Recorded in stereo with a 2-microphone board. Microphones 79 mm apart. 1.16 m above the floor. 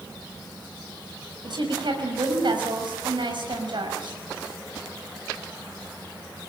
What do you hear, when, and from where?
1.4 s a woman speaking: 70° right (ahead or behind), 5.5 m